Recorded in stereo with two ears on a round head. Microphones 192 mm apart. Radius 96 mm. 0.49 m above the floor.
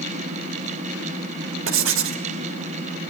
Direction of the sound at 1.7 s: 65° right (ahead or behind).